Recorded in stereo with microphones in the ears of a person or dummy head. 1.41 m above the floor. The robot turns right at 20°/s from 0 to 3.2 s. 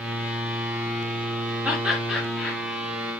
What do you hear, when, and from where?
1.6 s laughter: 15° right (ahead or behind), 1.2 m; by 2.6 s 5° left (ahead or behind), 1.2 m